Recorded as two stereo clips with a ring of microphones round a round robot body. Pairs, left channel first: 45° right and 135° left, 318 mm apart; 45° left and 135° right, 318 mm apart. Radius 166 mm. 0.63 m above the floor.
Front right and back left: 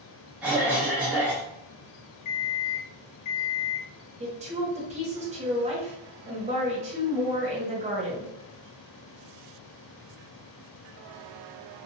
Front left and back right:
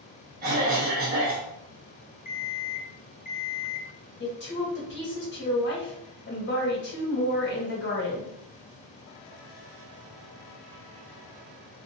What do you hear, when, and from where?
0.4 s a cough: 145° right, 0.8 m
2.2 s an alarm clock: 20° right, 0.6 m
4.2 s a woman speaking: 75° left, 1.2 m